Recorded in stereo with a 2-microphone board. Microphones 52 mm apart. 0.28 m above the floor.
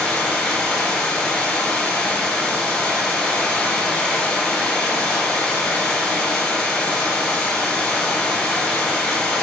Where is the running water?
10° left (ahead or behind), 0.7 m.